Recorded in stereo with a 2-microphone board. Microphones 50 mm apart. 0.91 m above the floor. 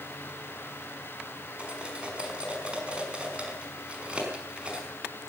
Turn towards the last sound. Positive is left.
turn(degrees=-25)  # may be behind; listen again after turning